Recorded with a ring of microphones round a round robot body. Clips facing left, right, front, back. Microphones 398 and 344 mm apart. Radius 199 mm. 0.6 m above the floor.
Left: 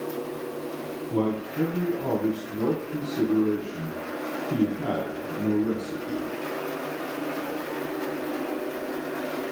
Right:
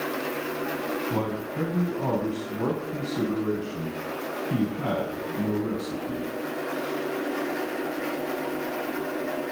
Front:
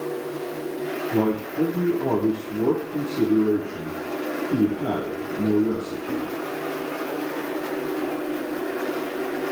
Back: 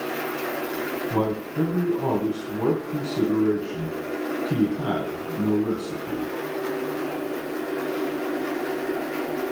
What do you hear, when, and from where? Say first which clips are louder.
1.1 s a man speaking: left 3 dB, front 4 dB; 155° right, 4 m